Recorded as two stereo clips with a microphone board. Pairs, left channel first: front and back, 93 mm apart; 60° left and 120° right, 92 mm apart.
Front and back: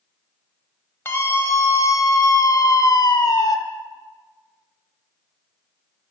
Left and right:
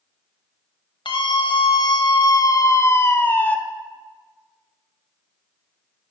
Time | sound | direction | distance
1.1 | a scream | 60° left | 2.0 m